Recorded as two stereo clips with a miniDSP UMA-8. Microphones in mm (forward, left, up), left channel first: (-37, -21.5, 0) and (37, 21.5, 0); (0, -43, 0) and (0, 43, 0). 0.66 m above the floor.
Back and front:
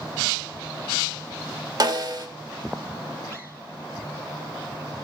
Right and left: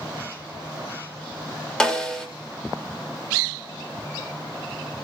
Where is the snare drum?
10° right, 1.7 m.